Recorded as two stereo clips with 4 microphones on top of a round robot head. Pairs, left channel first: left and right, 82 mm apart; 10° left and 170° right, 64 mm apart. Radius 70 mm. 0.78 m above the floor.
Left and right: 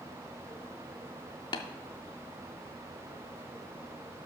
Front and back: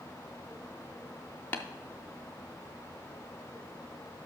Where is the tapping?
70° left, 0.6 m.